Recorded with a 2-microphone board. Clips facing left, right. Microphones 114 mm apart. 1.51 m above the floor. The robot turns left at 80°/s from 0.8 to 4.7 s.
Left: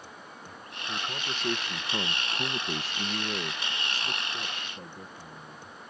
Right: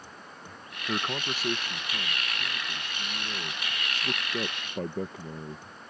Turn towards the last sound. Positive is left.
turn(degrees=-80)